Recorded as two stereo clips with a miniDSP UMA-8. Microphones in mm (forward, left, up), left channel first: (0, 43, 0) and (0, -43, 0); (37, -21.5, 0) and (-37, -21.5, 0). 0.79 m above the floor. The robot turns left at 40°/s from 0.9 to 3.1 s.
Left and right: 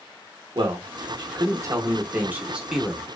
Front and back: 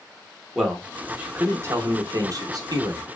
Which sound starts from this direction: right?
A man speaking, at 0.6 s.